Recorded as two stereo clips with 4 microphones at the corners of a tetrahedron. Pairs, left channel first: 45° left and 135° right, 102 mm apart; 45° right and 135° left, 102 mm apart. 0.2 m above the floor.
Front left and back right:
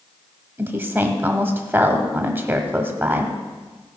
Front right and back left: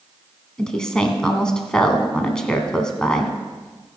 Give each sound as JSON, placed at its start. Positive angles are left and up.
{"t": 0.6, "sound": "a woman speaking", "azimuth_deg": -115, "distance_m": 1.0}